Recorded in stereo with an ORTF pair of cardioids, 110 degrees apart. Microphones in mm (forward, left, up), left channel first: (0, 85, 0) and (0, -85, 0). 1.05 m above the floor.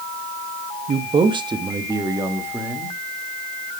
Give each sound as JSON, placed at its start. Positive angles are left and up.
{"t": 0.9, "sound": "a man speaking", "azimuth_deg": -40, "distance_m": 0.9}